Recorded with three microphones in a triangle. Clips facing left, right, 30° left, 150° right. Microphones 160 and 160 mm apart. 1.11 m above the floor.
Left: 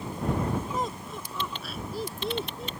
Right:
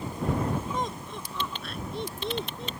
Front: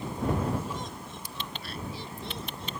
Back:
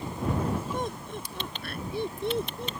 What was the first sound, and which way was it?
Laughter, 175° left.